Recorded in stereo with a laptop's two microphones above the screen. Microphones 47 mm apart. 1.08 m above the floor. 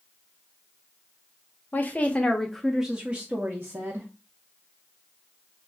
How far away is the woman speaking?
About 0.7 m.